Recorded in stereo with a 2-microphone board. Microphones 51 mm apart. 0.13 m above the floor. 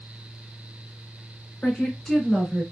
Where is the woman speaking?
20° left (ahead or behind), 1.1 m; by 2.6 s 5° right (ahead or behind), 1.4 m.